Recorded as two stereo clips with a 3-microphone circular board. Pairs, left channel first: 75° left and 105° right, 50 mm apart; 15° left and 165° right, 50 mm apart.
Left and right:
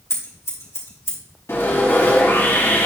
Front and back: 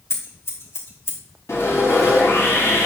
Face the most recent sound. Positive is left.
turn(degrees=40)